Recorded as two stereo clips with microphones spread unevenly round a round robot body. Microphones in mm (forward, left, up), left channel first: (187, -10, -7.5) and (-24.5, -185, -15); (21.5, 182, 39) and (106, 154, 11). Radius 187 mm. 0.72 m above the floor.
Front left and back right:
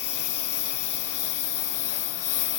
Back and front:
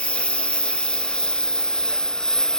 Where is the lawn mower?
85° left; by 2.6 s 80° left.